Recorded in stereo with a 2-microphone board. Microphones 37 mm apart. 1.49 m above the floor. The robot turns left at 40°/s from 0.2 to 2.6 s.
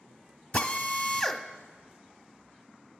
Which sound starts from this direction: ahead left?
A drill, at 0.5 s.